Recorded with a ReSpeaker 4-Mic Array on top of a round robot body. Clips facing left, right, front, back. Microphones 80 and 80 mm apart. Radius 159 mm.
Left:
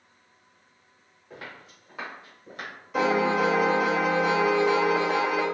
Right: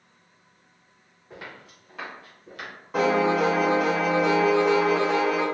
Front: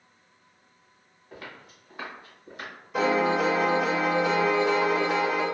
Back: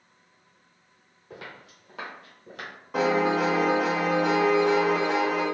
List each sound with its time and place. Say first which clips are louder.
1.3 s footsteps: right 1 dB, back 1 dB; 170° right, 1.4 m; by 2.7 s 155° left, 1.1 m
2.9 s a piano: right 2 dB, even; 140° right, 0.9 m